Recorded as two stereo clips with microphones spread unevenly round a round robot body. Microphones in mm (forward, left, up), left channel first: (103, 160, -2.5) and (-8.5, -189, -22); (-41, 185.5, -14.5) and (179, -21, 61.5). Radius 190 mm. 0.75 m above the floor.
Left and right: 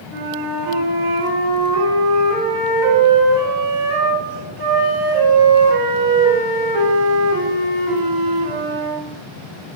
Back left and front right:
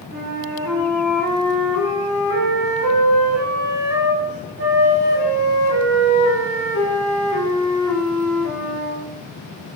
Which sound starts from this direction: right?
A flute, at 0.1 s.